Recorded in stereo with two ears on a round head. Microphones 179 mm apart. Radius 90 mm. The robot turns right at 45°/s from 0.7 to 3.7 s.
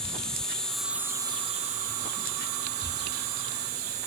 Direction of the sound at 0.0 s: 175° left.